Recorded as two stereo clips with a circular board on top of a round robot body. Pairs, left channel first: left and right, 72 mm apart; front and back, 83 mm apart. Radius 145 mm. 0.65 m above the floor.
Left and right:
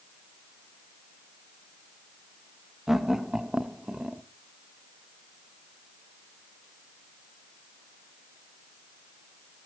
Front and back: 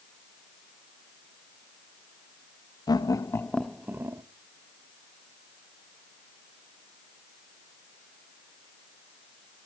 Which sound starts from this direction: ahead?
Laughter, at 2.9 s.